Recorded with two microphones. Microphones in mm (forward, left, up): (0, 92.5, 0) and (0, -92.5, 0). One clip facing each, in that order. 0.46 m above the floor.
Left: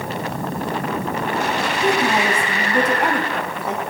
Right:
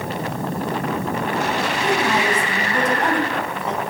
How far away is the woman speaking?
About 3.5 m.